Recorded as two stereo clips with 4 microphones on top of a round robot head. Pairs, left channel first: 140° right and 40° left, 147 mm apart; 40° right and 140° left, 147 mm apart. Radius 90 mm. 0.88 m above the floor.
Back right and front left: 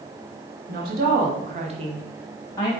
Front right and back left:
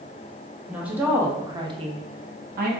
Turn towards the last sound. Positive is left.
turn(degrees=160)